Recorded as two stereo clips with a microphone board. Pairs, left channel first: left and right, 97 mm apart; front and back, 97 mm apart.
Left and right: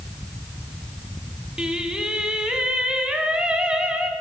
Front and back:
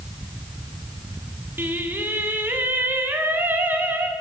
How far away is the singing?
About 0.9 m.